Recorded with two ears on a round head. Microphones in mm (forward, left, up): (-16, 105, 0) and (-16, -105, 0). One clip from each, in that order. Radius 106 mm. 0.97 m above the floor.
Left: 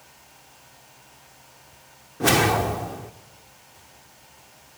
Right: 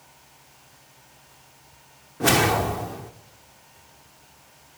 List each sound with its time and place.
2.2 s a whoosh: 5° right (ahead or behind), 0.5 m